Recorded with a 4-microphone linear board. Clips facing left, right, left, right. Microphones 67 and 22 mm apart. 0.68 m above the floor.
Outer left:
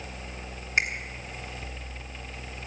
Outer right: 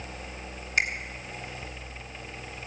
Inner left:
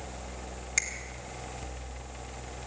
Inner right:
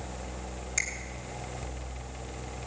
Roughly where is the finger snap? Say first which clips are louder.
Even, inner left 1 dB; left.